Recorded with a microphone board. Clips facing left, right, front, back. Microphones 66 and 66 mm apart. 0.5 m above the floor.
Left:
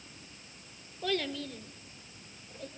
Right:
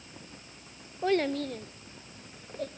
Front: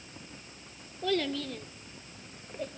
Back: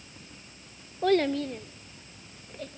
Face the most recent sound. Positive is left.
turn(degrees=-70)